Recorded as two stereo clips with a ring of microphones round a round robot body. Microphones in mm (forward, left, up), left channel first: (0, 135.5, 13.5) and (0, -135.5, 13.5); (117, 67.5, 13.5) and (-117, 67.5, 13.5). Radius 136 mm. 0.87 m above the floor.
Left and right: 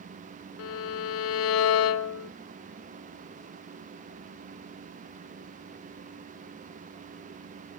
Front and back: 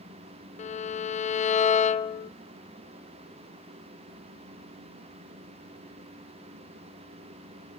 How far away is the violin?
About 0.6 m.